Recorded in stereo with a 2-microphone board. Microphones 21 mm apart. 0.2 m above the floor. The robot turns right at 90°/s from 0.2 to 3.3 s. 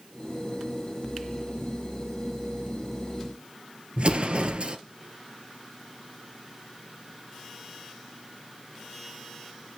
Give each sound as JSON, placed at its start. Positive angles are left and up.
{"t": 4.0, "sound": "an explosion", "side_deg": -55, "distance_m": 1.0}